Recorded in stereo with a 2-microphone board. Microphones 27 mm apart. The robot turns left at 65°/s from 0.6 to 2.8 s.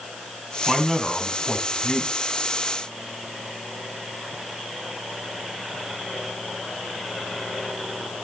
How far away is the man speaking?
About 2.5 m.